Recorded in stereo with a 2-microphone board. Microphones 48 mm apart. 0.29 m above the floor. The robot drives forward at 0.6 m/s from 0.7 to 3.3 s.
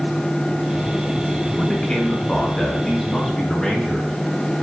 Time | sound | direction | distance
1.6 | a man speaking | 20° left (ahead or behind) | 1.6 m